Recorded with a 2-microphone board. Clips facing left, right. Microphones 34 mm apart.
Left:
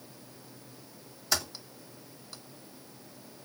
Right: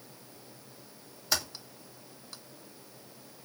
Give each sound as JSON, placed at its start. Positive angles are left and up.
{"t": 1.3, "sound": "typing on a keyboard", "side_deg": 0, "distance_m": 1.5}